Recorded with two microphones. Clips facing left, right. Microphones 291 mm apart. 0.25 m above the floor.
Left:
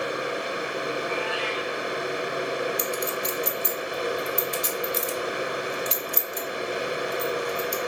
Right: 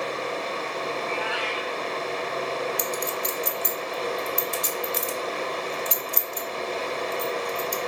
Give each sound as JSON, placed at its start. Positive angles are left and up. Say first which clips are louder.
{"t": 1.0, "sound": "a cat meowing", "louder": "left 1 dB", "side_deg": -75, "distance_m": 5.0}
{"t": 2.8, "sound": "a clink", "louder": "left 1 dB", "side_deg": -60, "distance_m": 1.5}